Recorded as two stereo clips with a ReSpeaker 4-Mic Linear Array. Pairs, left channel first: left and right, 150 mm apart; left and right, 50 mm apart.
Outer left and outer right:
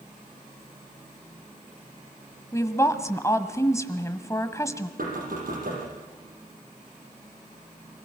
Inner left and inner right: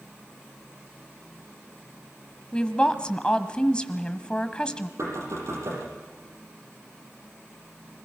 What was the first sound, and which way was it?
A woman speaking, 20° left (ahead or behind).